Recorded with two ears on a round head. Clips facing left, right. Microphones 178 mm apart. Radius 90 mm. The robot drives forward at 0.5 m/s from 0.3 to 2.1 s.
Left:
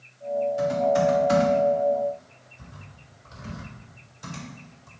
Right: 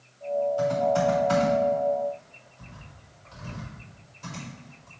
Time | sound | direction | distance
0.6 | typing on a keyboard | 20° left (ahead or behind) | 3 m